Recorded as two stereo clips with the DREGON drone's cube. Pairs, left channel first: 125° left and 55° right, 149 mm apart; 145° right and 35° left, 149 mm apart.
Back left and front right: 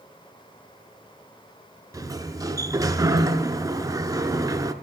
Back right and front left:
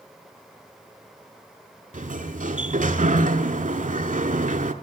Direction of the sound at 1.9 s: 10° left.